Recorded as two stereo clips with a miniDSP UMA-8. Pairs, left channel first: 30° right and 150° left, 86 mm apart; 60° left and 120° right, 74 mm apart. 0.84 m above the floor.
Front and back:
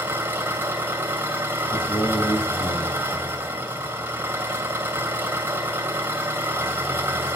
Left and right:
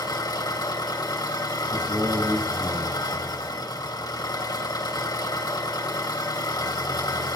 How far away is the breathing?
No breathing in this recording.